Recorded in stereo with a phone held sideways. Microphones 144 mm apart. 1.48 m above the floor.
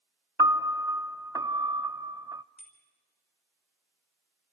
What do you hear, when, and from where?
0.4 s a piano: 25° right (ahead or behind), 0.6 m
2.6 s a bicycle bell: 45° left (ahead or behind), 4.5 m